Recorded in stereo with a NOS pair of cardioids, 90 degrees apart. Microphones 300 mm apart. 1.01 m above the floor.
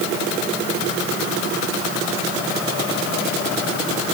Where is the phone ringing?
No phone ringing in this recording.